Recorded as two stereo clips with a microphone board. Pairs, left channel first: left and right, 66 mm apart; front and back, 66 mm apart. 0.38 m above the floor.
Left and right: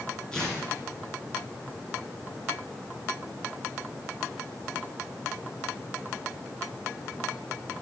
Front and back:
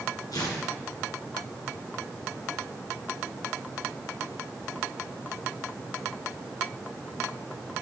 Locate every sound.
0.3 s tearing paper: 10° left, 2.5 m